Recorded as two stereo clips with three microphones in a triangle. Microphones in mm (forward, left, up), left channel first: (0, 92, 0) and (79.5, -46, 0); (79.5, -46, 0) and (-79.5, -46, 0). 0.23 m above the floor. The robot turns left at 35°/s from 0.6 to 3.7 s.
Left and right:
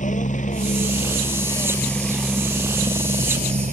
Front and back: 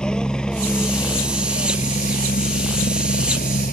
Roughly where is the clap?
I don't hear a clap.